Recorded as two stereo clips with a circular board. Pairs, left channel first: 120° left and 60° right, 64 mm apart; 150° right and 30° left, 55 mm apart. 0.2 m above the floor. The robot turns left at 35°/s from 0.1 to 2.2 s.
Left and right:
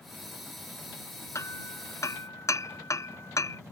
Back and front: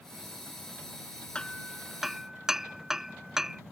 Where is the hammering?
140° left; by 3.6 s 110° left.